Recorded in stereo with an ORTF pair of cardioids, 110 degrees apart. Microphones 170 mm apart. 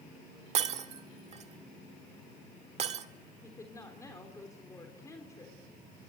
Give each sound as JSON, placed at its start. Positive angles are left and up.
{"t": 0.6, "sound": "breaking glass", "azimuth_deg": -40, "distance_m": 1.5}
{"t": 3.4, "sound": "a woman speaking", "azimuth_deg": 20, "distance_m": 3.5}